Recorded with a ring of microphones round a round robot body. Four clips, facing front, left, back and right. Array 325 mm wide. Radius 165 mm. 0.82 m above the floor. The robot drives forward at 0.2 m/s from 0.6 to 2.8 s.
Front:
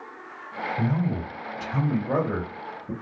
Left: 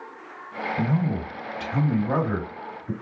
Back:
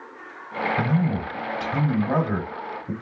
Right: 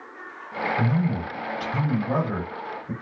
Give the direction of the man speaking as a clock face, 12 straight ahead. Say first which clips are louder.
Left 1 dB, back 1 dB; 7 o'clock.